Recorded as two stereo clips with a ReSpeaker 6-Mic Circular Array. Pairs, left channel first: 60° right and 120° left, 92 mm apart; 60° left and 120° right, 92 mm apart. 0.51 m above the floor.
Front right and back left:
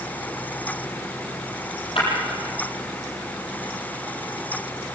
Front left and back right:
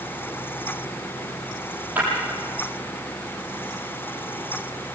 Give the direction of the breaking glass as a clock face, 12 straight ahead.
2 o'clock.